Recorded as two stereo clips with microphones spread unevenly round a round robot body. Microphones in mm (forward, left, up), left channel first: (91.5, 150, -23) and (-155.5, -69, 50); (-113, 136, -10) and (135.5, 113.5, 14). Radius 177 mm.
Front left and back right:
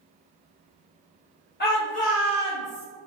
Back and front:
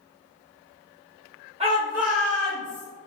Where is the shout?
55° left, 1.1 m; by 2.9 s 115° left, 1.6 m.